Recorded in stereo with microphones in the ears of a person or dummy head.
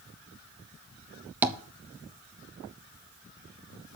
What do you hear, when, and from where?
1.4 s tapping: 10° right (ahead or behind), 0.9 m